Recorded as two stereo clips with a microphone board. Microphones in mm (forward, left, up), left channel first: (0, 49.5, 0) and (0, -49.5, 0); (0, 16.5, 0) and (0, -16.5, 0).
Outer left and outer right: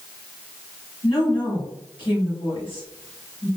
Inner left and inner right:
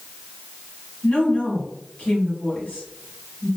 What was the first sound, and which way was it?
A woman speaking, 60° left (ahead or behind).